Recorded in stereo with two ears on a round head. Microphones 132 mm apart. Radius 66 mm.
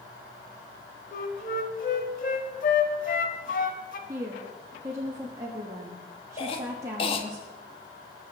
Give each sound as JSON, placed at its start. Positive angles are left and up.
{"t": 1.1, "sound": "a flute", "side_deg": 55, "distance_m": 1.2}
{"t": 4.1, "sound": "a woman speaking", "side_deg": -20, "distance_m": 1.4}
{"t": 6.4, "sound": "a cough", "side_deg": 35, "distance_m": 1.5}